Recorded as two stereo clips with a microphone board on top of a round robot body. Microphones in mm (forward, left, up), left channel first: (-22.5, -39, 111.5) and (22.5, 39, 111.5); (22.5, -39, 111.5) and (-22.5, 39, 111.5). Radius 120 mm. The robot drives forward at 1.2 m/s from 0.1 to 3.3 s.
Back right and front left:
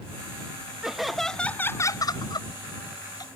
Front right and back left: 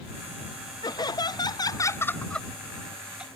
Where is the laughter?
25° right; by 3.3 s 160° right.